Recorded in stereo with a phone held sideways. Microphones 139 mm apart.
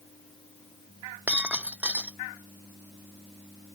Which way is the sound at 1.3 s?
10° right (ahead or behind).